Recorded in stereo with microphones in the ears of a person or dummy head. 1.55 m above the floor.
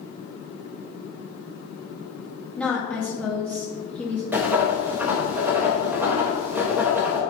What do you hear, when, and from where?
2.6 s a woman speaking: 10° left (ahead or behind), 0.8 m
4.3 s writing: 10° right (ahead or behind), 0.7 m